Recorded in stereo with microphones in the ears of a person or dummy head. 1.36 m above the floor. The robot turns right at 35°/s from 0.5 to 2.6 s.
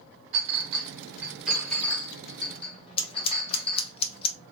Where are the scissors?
35° left (ahead or behind), 0.6 m.